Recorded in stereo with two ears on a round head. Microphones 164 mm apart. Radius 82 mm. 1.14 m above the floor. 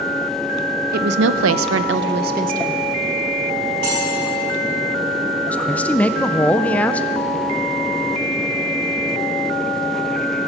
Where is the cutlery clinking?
65° right (ahead or behind), 4.5 m.